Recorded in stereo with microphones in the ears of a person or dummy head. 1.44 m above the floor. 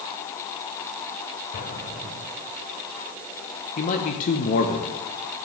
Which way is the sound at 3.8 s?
45° left (ahead or behind).